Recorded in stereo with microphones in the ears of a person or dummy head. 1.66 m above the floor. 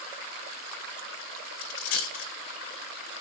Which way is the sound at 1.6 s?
60° left (ahead or behind).